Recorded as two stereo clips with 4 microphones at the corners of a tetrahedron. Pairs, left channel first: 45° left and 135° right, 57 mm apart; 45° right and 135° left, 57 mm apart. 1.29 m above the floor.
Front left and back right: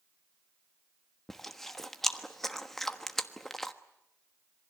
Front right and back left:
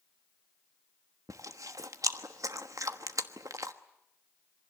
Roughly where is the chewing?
Behind left.